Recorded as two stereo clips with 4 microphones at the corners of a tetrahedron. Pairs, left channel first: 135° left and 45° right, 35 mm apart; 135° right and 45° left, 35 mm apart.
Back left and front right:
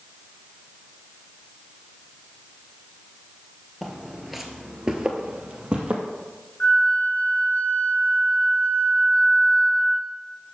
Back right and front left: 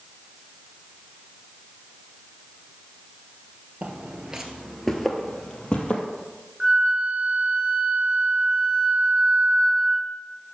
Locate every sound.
3.8 s footsteps: 60° left, 1.2 m; by 6.0 s 95° right, 1.7 m
6.6 s a flute: 105° left, 1.4 m